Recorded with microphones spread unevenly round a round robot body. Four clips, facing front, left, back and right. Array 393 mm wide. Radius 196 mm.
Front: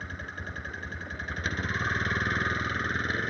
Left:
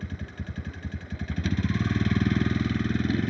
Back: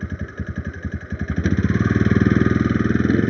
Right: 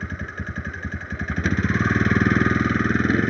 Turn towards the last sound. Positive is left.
turn(degrees=-170)